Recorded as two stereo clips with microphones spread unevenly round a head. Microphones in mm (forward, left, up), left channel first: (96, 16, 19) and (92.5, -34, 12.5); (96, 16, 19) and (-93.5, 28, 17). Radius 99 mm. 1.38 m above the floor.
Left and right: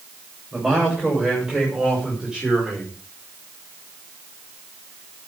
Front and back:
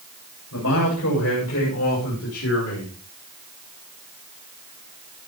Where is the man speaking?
20° right, 8 m; by 2.9 s 15° right, 5.5 m.